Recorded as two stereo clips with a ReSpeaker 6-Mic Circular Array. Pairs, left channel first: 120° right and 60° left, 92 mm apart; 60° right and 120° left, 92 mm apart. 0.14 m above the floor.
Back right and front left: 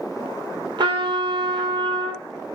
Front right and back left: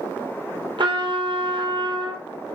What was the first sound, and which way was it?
A trumpet, 95° left.